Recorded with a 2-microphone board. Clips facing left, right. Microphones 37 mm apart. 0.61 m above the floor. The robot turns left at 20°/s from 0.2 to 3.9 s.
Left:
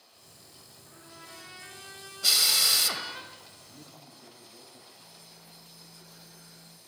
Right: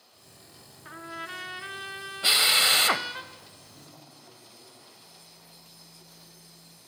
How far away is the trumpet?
About 2 m.